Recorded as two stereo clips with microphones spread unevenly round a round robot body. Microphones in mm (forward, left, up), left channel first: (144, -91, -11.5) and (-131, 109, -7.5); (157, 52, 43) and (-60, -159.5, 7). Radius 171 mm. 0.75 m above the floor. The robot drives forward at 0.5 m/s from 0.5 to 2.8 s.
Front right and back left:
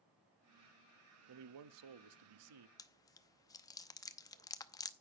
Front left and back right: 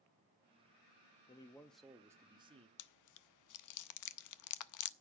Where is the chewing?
40° left, 0.6 m.